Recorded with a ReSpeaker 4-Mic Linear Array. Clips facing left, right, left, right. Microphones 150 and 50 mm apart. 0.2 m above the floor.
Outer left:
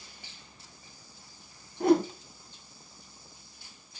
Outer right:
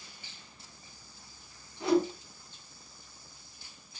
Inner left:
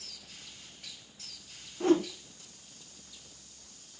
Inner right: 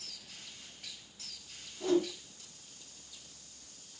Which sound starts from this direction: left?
A whoosh, at 1.8 s.